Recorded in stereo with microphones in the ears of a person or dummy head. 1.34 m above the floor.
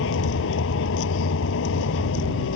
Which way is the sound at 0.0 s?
70° left (ahead or behind).